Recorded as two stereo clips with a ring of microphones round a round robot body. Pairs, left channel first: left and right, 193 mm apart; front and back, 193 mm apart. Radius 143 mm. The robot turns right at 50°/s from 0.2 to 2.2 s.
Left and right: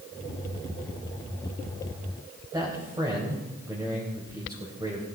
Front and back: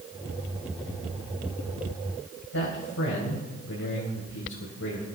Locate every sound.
2.5 s a man speaking: 20° right, 3.5 m